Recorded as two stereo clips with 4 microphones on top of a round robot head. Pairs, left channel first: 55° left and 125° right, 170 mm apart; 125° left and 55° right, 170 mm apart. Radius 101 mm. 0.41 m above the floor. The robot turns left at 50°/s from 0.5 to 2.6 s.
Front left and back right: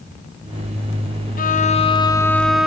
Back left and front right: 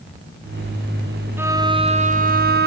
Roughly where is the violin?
Ahead left.